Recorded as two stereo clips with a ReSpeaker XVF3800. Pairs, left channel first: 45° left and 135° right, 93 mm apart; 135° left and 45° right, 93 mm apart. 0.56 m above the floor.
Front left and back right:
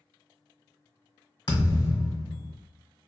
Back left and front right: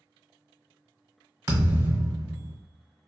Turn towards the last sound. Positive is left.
turn(degrees=10)